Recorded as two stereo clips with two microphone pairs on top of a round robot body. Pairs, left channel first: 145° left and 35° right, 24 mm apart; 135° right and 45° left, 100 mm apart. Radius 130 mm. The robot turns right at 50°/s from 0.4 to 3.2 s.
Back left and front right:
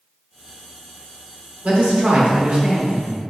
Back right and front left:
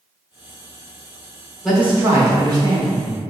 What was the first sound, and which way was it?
A man speaking, 45° right.